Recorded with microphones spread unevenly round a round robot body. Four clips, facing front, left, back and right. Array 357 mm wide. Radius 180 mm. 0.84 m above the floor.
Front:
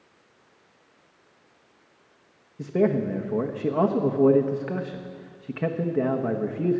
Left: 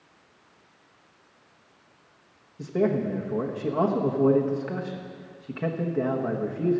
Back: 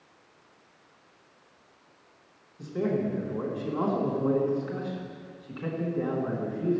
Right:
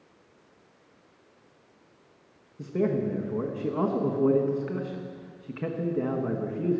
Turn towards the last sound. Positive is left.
turn(degrees=15)